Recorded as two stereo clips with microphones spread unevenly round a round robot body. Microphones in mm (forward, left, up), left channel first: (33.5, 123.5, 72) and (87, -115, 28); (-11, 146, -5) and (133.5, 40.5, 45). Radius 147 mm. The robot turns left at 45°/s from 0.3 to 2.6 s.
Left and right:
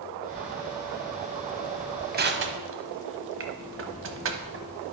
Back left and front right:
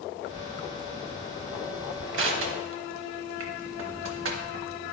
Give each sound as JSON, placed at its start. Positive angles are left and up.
{"t": 2.1, "sound": "crushing", "azimuth_deg": -30, "distance_m": 0.9}